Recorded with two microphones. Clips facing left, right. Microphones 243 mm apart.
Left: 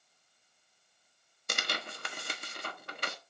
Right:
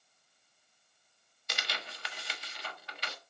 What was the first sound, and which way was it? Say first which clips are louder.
Tearing paper: left 4 dB; 50° left (ahead or behind).